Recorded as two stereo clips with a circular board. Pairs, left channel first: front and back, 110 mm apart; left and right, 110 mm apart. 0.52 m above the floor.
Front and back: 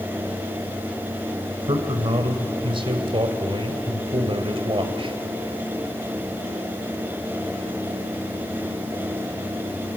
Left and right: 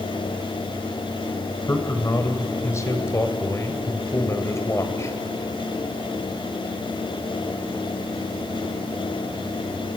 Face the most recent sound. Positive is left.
turn(degrees=150)